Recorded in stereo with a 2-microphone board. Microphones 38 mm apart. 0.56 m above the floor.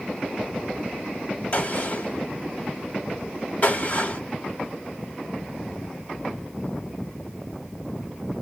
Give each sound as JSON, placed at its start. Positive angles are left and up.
{"t": 1.5, "sound": "a gunshot", "side_deg": 40, "distance_m": 1.1}